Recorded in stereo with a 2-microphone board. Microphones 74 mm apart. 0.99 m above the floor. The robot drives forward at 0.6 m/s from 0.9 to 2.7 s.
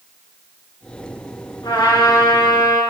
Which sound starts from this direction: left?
A trumpet, at 1.6 s.